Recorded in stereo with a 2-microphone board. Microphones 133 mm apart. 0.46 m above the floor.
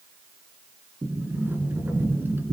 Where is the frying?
No frying in this recording.